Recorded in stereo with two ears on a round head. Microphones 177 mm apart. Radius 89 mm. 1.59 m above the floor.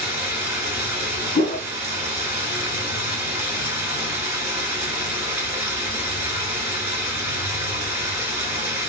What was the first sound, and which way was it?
Running water, 15° right (ahead or behind).